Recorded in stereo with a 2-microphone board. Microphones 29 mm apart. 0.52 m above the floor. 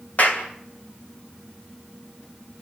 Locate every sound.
0.2 s a clap: 60° left (ahead or behind), 2.5 m